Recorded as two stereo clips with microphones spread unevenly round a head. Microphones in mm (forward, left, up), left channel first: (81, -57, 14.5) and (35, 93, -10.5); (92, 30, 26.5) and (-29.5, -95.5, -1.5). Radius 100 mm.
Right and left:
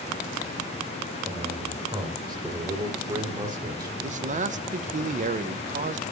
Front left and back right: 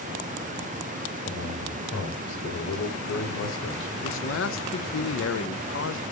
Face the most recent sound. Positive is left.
turn(degrees=70)